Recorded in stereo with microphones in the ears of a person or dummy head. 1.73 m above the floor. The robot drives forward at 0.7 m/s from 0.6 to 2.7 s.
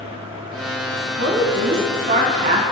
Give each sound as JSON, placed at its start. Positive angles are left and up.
{"t": 1.2, "sound": "a woman speaking", "side_deg": -55, "distance_m": 1.7}